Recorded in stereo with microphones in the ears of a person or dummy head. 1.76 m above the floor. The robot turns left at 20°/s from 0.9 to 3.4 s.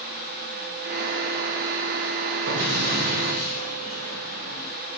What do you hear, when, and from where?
2.5 s an explosion: 60° right (ahead or behind), 1.4 m; by 4.7 s 45° right (ahead or behind), 1.4 m